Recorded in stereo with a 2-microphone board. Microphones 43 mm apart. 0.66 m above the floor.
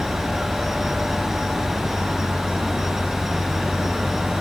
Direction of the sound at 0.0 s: 5° right (ahead or behind).